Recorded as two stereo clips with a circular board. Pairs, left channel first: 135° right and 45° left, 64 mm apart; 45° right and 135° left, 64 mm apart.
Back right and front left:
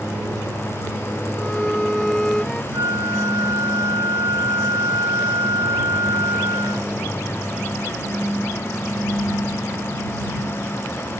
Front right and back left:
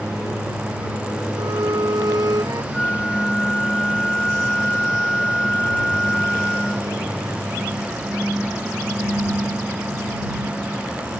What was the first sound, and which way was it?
A violin, 140° left.